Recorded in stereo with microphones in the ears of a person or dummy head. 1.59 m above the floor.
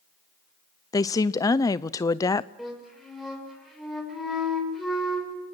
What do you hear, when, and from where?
0.9 s a woman speaking: 20° left (ahead or behind), 0.6 m
2.6 s a flute: centre (ahead or behind), 6 m